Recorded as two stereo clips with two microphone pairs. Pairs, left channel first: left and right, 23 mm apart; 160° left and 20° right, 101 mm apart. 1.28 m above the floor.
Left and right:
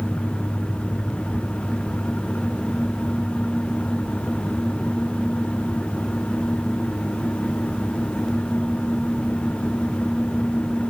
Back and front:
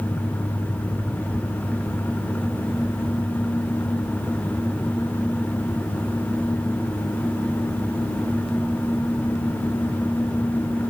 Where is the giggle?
No giggle in this recording.